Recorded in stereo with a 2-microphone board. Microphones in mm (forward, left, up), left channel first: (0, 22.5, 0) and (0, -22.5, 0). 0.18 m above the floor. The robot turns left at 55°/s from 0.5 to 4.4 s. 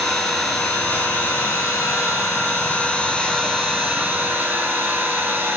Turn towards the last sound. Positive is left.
turn(degrees=-55)